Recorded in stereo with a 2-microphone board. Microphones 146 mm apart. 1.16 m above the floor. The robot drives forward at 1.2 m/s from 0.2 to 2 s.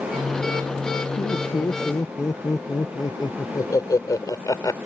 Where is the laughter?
35° left (ahead or behind); by 4.8 s 25° left (ahead or behind).